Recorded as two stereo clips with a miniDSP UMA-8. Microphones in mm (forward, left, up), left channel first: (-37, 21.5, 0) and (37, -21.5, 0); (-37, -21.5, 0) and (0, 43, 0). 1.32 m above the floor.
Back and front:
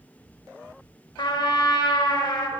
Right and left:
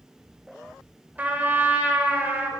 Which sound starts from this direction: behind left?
A trumpet, at 1.2 s.